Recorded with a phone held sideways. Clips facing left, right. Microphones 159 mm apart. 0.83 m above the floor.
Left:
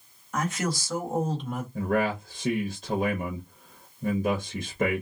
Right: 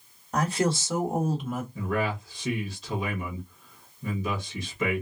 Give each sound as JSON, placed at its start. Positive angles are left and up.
{"t": 0.3, "sound": "a woman speaking", "side_deg": -35, "distance_m": 1.2}
{"t": 1.8, "sound": "a man speaking", "side_deg": 50, "distance_m": 0.9}